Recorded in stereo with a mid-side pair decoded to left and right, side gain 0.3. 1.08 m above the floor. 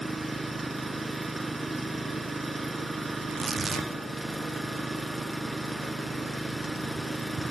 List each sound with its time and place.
0.0 s an engine running: 20° right, 4 m
3.2 s tearing paper: 60° right, 1.7 m